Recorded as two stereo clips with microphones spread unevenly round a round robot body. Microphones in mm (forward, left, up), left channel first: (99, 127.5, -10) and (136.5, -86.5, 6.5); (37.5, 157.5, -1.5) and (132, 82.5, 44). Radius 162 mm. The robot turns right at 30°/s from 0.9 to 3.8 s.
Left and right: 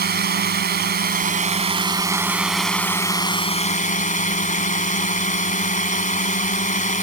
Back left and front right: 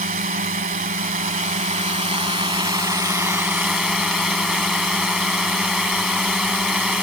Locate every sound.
0.0 s a drone: 40° right; by 7.0 s 45° left